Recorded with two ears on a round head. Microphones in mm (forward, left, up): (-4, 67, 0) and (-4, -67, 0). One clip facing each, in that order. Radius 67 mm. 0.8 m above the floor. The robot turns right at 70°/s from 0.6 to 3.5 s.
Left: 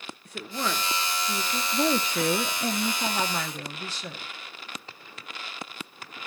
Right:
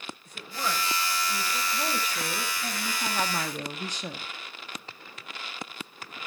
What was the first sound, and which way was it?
A woman speaking, 65° left.